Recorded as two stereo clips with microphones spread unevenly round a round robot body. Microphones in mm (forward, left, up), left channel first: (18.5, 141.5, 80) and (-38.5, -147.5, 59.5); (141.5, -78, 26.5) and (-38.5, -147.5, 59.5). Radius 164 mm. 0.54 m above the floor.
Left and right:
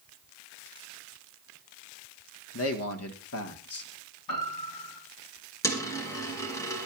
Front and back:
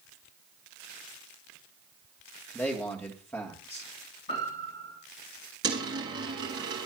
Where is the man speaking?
85° left, 1.6 m.